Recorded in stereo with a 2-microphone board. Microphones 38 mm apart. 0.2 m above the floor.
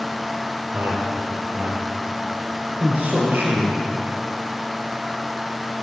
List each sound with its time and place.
0.7 s a man speaking: 60° right (ahead or behind), 4.5 m; by 3.8 s 40° right (ahead or behind), 3.5 m